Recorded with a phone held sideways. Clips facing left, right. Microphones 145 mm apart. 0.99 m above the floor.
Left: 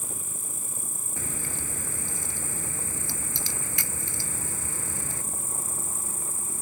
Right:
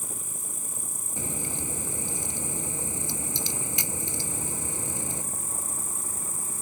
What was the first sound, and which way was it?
An insect, 20° right (ahead or behind).